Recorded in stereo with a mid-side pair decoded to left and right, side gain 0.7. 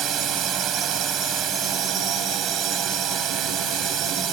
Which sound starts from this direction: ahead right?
A drone, at 0.0 s.